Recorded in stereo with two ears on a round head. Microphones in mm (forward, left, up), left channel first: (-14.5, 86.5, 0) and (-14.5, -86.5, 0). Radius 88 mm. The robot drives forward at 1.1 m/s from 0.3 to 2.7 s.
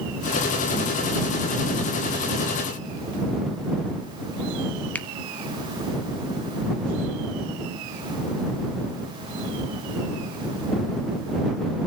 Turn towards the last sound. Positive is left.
turn(degrees=10)  # may be behind; listen again after turning